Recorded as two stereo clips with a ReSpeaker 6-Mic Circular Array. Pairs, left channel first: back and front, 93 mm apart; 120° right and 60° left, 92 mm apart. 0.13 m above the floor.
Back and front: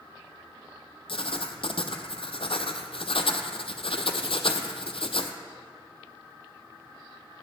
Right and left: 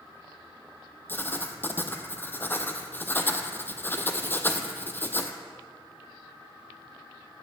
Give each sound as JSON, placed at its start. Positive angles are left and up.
{"t": 1.1, "sound": "writing", "azimuth_deg": 170, "distance_m": 0.7}